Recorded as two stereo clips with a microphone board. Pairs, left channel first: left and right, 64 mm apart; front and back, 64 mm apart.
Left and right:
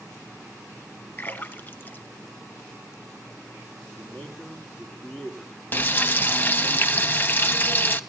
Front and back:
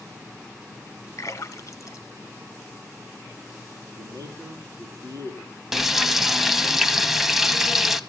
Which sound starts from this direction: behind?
A man speaking, at 3.9 s.